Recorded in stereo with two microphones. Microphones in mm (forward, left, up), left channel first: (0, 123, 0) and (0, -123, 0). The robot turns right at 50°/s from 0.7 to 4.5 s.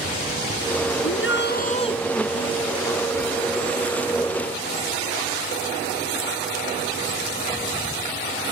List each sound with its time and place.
1.0 s a shout: 115° left; by 2.0 s 165° left